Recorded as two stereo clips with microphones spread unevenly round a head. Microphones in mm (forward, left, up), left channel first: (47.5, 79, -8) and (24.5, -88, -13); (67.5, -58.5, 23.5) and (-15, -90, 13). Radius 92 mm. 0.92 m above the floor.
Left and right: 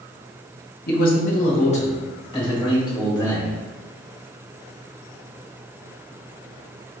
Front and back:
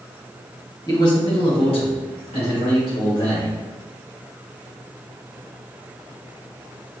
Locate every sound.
0.9 s a man speaking: 75° left, 0.9 m; by 3.5 s 15° left, 3 m